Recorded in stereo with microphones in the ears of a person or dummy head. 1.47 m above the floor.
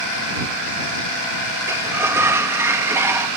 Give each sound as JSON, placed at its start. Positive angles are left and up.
{"t": 1.7, "sound": "a sliding door", "side_deg": -10}